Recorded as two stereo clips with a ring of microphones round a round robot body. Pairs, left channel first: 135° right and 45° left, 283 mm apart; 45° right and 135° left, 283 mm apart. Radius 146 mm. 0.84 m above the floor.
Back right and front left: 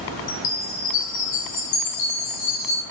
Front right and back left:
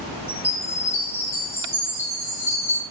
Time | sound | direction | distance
0.3 | a chime | 125° right | 1.3 m